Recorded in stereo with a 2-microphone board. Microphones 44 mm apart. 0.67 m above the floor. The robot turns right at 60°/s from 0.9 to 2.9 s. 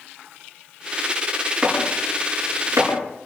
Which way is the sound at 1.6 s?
20° right (ahead or behind).